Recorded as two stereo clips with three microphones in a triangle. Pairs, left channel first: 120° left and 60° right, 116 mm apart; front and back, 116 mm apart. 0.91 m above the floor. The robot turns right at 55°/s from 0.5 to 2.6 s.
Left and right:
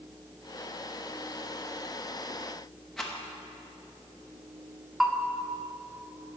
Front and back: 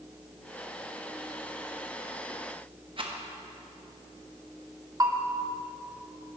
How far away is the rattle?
About 1.0 m.